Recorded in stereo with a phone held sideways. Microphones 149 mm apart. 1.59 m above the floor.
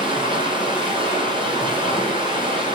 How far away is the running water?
About 0.8 m.